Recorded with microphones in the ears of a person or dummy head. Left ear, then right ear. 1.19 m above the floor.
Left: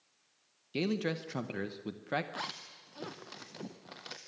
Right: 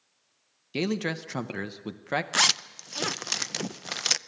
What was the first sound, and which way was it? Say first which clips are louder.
A man speaking: right 4 dB; 5° right (ahead or behind).